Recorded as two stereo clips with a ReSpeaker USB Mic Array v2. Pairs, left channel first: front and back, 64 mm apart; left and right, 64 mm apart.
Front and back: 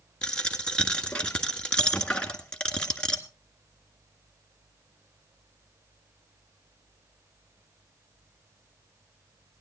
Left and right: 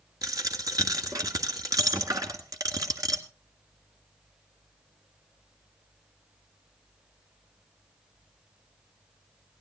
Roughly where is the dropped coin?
Right.